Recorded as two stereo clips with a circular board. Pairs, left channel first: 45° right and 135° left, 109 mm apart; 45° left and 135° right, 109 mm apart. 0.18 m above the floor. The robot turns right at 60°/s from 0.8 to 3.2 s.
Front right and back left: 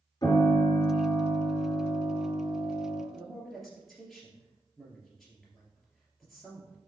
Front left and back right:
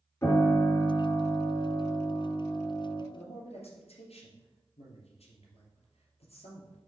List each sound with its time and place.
0.2 s a piano: 15° right, 2.5 m; by 3.0 s 120° left, 2.5 m
3.1 s a man speaking: 40° left, 3 m; by 6.8 s 45° left, 3 m